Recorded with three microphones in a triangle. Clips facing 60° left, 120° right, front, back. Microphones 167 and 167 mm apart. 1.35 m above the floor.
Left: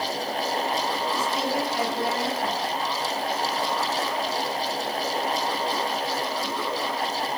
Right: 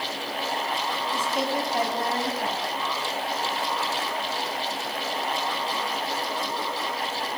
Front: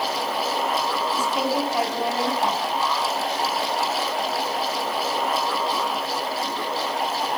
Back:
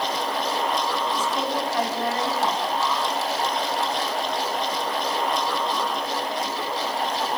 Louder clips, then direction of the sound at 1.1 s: Right 2 dB, front 2 dB; 80° right.